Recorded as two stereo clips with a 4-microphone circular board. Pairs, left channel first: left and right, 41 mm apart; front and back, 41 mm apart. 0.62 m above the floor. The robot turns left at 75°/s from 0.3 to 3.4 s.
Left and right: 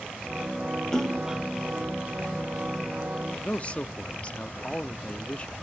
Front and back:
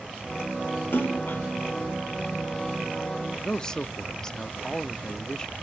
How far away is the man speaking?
About 0.8 m.